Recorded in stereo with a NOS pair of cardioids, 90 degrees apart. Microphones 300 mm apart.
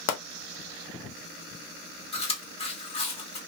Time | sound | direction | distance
0.1 | a pop | 65° left | 0.7 m
2.1 | chewing | 20° left | 1.1 m